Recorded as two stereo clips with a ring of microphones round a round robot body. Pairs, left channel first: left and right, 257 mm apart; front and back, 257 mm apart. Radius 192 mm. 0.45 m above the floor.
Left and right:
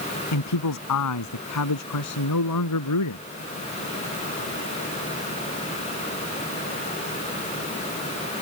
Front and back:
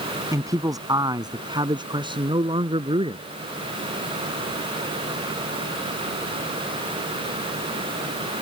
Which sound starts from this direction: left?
A man speaking, at 0.3 s.